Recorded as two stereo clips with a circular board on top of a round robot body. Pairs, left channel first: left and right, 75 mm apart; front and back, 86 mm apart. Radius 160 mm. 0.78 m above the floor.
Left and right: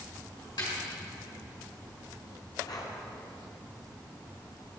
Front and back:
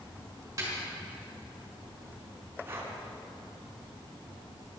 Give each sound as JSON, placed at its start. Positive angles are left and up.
{"t": 0.6, "sound": "a snare drum", "azimuth_deg": 125, "distance_m": 3.5}
{"t": 2.6, "sound": "breathing", "azimuth_deg": 120, "distance_m": 1.9}